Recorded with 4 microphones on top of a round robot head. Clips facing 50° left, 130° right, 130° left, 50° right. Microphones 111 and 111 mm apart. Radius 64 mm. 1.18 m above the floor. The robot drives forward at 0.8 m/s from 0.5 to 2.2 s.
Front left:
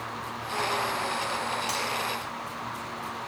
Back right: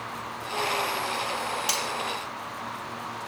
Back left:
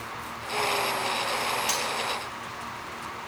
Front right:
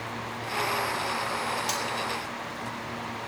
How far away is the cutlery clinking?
About 0.9 m.